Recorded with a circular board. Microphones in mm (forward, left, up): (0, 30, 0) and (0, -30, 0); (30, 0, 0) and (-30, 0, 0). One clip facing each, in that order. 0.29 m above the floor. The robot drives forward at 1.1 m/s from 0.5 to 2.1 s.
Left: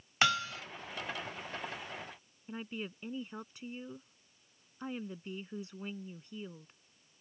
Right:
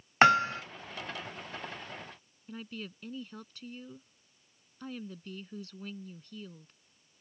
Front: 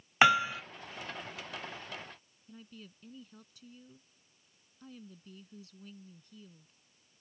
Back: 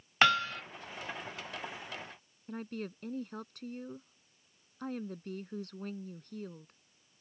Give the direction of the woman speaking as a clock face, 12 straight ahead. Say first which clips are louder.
Left 1 dB, back 12 dB; 7 o'clock.